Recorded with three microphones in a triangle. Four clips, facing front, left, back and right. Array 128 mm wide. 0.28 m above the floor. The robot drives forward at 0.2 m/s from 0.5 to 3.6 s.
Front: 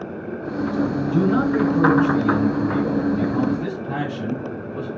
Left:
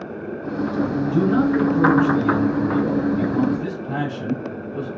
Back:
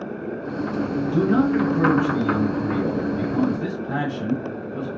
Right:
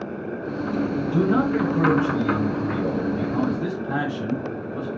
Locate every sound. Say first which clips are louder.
1.1 s a man speaking: left 2 dB, back 1 dB; 80° right, 1.2 m; by 4.9 s 125° right, 1.2 m